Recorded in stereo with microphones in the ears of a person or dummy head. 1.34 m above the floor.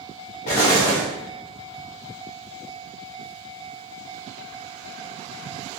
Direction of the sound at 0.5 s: 25° left (ahead or behind).